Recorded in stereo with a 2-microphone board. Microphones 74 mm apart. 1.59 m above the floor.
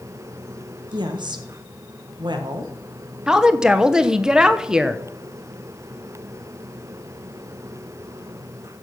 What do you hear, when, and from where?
0.9 s a woman speaking: 80° right, 1.6 m
3.3 s a woman speaking: 10° right (ahead or behind), 0.8 m